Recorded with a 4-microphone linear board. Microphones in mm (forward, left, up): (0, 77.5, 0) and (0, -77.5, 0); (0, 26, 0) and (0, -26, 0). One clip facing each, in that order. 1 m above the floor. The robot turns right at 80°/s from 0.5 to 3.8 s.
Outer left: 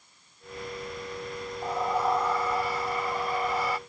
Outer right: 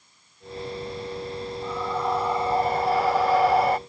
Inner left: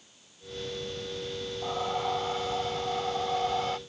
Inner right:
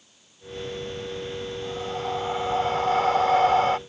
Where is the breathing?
140° left; by 3.8 s 45° right.